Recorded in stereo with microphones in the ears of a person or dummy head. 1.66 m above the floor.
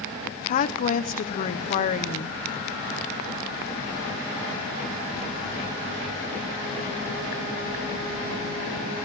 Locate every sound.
0.5 s a woman speaking: 45° left (ahead or behind), 0.9 m